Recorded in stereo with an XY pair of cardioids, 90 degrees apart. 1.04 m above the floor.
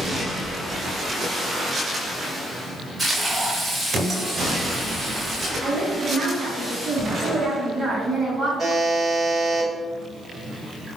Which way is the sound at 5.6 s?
60° right.